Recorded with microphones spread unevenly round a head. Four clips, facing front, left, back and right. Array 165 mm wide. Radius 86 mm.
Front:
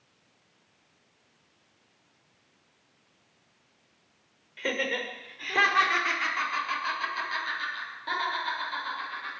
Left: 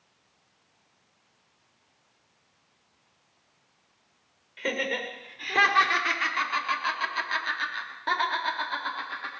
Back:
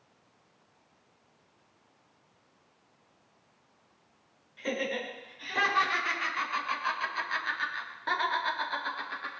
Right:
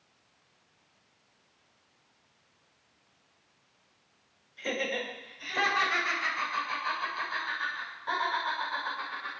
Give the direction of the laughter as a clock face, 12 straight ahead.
11 o'clock.